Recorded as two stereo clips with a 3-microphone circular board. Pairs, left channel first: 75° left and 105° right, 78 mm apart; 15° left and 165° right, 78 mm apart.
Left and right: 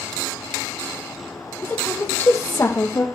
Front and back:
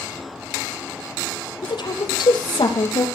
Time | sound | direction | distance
1.6 | a woman speaking | 5° left | 6 m